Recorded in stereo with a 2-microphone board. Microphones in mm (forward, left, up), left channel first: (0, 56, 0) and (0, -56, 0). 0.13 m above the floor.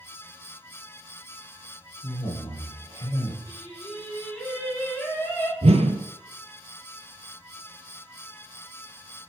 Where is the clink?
No clink in this recording.